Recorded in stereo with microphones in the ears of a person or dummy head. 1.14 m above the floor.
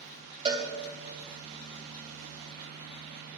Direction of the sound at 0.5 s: 30° right (ahead or behind).